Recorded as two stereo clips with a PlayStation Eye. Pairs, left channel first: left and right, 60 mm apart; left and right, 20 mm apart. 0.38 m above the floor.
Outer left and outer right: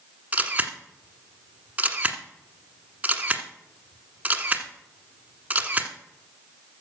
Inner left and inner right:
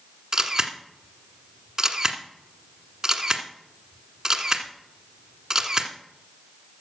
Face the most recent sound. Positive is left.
turn(degrees=-25)  # may be behind; listen again after turning